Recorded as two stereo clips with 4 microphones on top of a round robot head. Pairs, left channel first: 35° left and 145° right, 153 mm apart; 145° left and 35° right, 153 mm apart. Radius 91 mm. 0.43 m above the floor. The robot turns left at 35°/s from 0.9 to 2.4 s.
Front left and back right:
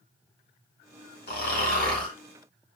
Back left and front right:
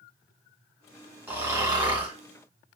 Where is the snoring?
40° left, 1.6 m; by 2.1 s 10° left, 1.6 m.